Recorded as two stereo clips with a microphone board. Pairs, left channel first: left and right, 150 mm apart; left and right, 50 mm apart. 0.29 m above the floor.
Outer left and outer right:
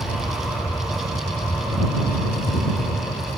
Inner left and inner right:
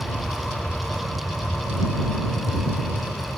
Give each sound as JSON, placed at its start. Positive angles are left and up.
{"t": 0.0, "sound": "an aircraft", "side_deg": 30}